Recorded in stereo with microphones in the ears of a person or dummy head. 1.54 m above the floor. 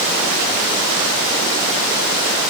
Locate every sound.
Only background noise.